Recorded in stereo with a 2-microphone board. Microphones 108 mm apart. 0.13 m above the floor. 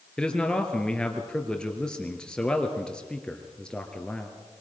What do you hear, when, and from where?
0.2 s a man speaking: 10° left (ahead or behind), 1.9 m